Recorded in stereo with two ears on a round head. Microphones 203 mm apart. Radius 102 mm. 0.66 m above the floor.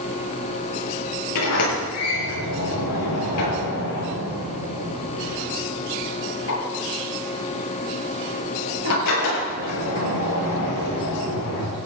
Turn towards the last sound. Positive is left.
turn(degrees=85)